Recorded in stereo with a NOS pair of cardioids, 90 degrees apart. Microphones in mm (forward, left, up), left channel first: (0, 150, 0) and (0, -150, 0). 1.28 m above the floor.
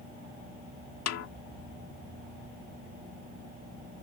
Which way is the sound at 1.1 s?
60° left.